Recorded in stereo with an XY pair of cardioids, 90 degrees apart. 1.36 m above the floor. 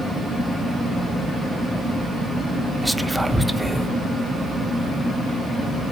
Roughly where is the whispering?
Ahead.